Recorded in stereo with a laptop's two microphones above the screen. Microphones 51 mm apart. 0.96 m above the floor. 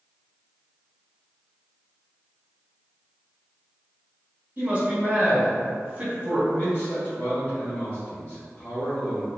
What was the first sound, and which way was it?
A man speaking, 25° right (ahead or behind).